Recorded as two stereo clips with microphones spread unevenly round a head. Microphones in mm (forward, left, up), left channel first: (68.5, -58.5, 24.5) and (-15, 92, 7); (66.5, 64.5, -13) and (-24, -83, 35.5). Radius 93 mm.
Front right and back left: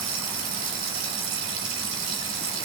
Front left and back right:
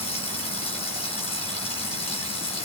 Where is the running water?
125° left, 3.5 m.